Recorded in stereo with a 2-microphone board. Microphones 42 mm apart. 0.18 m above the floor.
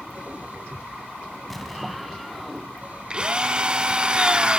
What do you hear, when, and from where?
1.5 s an explosion: 5° left (ahead or behind), 1.4 m
3.1 s a drill: 20° right (ahead or behind), 1.0 m